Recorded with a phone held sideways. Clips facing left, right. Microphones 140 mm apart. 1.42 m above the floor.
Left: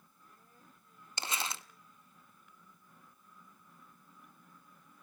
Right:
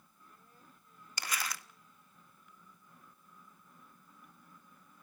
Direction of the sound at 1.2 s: 25° left (ahead or behind).